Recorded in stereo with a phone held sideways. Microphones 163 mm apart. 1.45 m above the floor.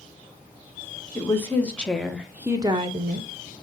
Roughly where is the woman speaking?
Centre.